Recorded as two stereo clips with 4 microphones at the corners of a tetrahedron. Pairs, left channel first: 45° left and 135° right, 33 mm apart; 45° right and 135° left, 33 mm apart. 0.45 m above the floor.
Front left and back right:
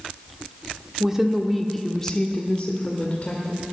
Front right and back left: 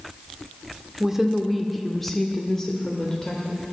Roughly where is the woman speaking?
Behind.